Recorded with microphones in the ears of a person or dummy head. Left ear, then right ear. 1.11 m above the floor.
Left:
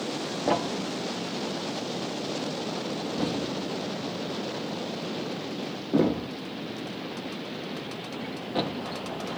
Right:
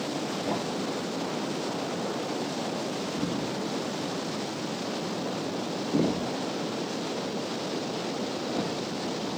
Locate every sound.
0.5 s a thud: 40° left (ahead or behind), 0.9 m